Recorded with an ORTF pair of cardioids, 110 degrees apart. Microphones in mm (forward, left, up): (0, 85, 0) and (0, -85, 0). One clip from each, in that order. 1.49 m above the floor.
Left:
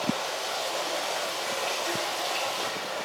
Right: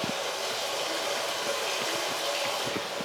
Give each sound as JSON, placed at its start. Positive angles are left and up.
{"t": 0.0, "sound": "running water", "azimuth_deg": -25, "distance_m": 4.5}